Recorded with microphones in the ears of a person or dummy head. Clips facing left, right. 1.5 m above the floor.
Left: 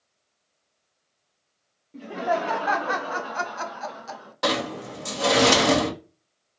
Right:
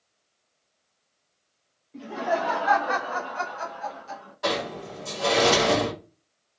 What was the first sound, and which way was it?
Laughter, 15° left (ahead or behind).